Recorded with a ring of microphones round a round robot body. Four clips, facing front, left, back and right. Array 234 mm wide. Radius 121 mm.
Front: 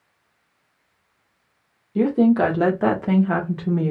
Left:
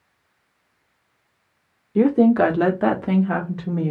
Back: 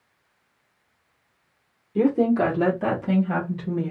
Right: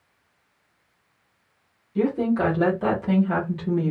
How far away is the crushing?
No crushing in this recording.